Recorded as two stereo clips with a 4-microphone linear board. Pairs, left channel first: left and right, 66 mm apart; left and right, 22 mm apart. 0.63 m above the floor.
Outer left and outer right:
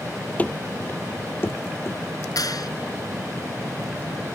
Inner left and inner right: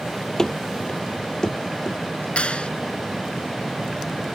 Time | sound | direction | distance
0.4 | running footsteps | 25° left (ahead or behind) | ?
2.4 | a clap | 75° left (ahead or behind) | ?